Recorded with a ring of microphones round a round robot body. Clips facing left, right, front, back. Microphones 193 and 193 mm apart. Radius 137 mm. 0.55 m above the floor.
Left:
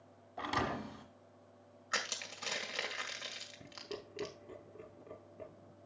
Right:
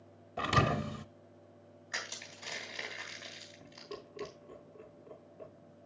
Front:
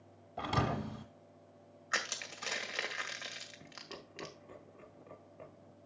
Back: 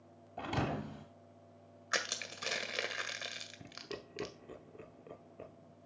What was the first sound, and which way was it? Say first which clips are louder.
A thud: right 6 dB, front 1 dB; 85° right.